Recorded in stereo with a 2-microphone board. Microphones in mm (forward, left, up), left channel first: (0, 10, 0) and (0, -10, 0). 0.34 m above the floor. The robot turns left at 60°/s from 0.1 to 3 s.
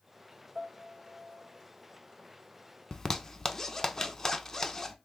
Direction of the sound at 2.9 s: 25° left (ahead or behind).